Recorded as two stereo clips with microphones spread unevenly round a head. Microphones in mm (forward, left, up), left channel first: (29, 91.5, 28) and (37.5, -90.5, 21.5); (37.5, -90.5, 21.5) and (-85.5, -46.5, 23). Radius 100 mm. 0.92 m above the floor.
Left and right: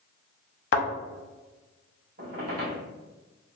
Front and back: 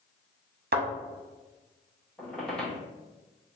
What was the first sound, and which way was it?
A thud, 125° left.